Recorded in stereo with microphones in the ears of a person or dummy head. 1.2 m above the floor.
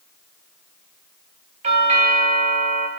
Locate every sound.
1.6 s a doorbell: 35° right (ahead or behind), 1.3 m